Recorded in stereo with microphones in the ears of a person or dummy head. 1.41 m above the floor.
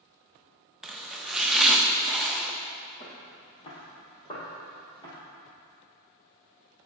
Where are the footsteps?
30° left (ahead or behind), 3 m; by 5.1 s 20° left (ahead or behind), 1.9 m.